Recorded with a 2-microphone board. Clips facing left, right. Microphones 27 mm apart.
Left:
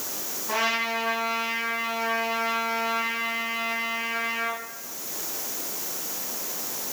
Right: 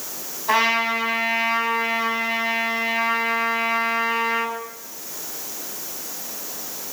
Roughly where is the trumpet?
Right.